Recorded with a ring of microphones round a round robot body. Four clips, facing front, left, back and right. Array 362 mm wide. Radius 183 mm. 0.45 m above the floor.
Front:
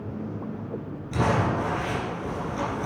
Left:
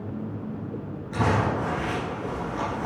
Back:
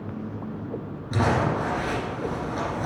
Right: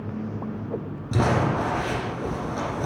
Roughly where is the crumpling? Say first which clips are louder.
Right 2 dB, back 1 dB; right.